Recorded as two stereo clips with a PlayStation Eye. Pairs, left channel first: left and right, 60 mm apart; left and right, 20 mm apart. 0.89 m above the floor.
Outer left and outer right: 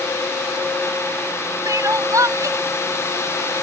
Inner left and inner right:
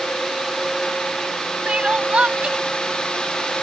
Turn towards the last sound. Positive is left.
turn(degrees=-70)  # may be behind; listen again after turning